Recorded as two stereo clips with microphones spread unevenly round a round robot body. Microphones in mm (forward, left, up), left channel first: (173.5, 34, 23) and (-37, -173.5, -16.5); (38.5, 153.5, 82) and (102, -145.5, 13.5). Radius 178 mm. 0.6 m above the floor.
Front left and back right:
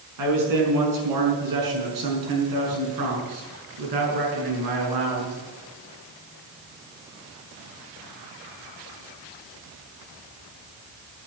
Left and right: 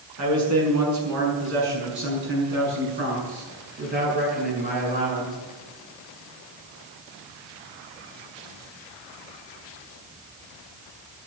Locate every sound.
0.2 s a man speaking: 120° right, 5.5 m; by 5.3 s 155° right, 7 m